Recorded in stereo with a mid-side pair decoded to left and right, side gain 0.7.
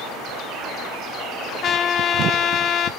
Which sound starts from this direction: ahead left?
A trumpet, at 1.6 s.